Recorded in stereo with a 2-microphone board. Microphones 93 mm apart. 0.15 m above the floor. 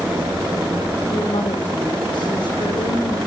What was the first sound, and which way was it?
A woman speaking, 55° left (ahead or behind).